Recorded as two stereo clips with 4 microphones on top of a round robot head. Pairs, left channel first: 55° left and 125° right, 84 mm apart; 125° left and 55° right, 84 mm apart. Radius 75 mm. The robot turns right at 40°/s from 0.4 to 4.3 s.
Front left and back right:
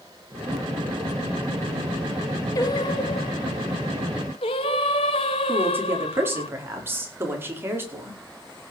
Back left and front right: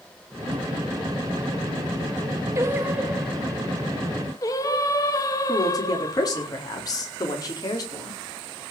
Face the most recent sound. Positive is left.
turn(degrees=170)